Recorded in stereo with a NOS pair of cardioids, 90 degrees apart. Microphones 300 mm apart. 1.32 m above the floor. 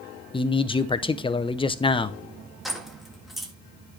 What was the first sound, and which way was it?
A man speaking, 15° left.